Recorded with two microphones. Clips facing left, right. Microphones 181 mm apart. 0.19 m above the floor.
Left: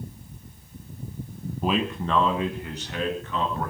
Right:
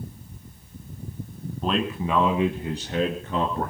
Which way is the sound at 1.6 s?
10° left (ahead or behind).